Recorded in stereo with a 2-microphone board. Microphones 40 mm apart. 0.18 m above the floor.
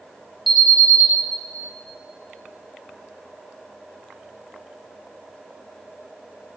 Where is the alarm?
5° right (ahead or behind), 3 m.